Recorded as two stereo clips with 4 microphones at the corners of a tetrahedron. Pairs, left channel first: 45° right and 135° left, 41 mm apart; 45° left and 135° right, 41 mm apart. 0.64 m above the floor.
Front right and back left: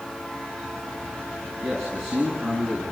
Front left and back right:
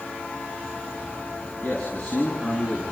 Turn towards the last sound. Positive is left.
turn(degrees=110)